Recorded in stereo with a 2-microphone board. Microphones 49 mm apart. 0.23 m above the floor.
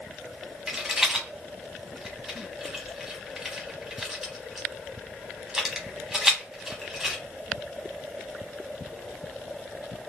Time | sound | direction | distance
0.7 | a rattle | 10° right (ahead or behind) | 0.8 m